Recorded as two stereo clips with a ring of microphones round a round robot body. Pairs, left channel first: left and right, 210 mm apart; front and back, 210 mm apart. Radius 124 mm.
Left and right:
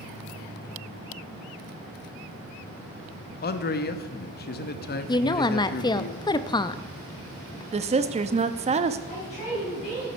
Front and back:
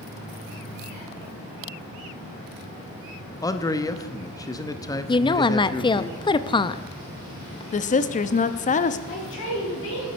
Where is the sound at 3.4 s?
70° left, 0.8 m.